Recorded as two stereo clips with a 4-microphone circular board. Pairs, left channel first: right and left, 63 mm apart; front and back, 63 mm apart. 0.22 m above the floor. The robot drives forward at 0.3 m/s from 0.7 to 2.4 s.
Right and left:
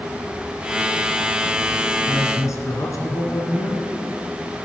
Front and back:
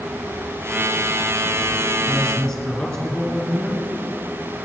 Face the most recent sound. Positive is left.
turn(degrees=-90)